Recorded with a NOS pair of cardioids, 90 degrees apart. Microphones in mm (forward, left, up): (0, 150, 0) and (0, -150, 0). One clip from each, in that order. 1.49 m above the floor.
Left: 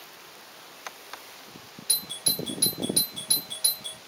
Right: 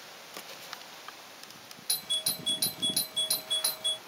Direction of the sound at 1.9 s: 10° left.